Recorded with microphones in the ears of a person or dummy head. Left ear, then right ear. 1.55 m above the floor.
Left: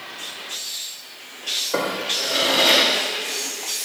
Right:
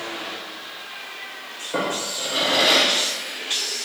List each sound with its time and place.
1.7 s a drawer: 25° left (ahead or behind), 4 m